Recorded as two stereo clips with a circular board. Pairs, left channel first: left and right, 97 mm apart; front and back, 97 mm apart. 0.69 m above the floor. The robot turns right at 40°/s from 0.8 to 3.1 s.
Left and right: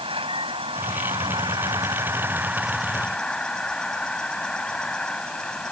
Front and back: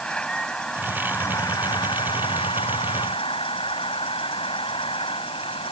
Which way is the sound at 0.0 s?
80° right.